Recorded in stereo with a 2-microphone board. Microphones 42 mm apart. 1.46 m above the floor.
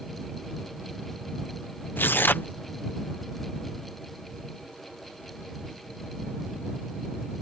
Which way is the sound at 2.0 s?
55° left (ahead or behind).